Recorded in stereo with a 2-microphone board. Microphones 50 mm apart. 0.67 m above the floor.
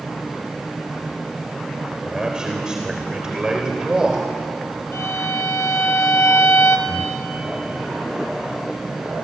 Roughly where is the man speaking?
Centre.